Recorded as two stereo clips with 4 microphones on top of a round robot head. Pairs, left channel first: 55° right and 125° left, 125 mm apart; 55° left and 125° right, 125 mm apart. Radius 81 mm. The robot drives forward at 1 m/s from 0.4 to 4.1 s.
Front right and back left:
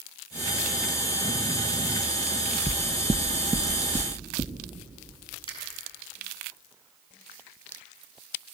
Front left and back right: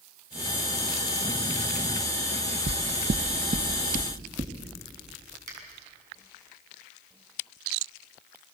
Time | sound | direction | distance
2.7 | knocking | 105° right | 0.5 m
5.5 | a finger snap | 105° right | 6.5 m